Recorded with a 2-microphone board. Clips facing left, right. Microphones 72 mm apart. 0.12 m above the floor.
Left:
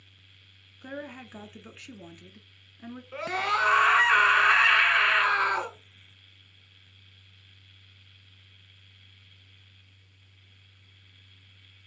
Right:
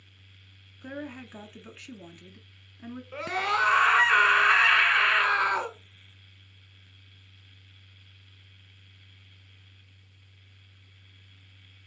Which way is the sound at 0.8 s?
5° left (ahead or behind).